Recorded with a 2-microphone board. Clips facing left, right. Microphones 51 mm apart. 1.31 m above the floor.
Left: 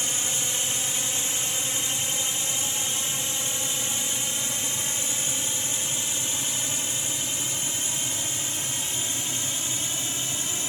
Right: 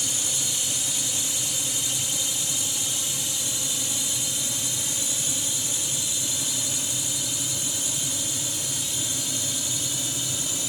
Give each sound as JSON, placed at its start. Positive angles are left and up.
{"t": 0.0, "sound": "a drone", "side_deg": 35}